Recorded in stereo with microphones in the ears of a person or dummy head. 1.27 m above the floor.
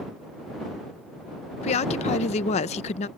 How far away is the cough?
No cough in this recording.